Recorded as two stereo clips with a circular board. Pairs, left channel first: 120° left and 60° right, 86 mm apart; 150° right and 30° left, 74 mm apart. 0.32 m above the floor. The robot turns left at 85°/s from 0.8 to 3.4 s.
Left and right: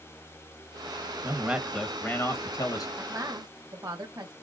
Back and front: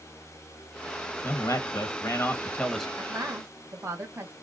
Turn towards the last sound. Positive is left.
turn(degrees=-20)